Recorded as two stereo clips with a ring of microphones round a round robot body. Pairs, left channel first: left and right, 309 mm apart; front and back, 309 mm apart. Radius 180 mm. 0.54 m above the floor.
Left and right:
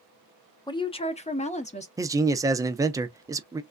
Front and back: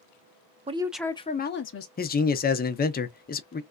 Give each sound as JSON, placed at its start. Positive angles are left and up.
{"t": 0.7, "sound": "a woman speaking", "azimuth_deg": 145, "distance_m": 0.6}
{"t": 2.0, "sound": "a man speaking", "azimuth_deg": -20, "distance_m": 0.7}